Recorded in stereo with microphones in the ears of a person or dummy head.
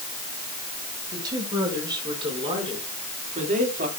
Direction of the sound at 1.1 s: 20° right (ahead or behind).